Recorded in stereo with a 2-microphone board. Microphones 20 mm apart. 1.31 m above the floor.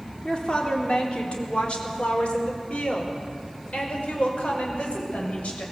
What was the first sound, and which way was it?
A woman speaking, 50° left (ahead or behind).